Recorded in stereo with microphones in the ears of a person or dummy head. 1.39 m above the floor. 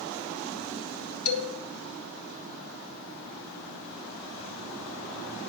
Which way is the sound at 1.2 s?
70° left (ahead or behind).